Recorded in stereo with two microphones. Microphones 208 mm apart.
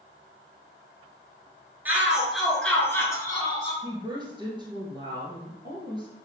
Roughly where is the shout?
Centre.